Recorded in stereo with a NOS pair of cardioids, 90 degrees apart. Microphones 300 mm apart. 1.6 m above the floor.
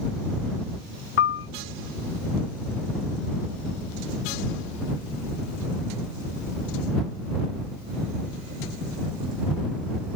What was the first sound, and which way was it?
A piano, 45° left.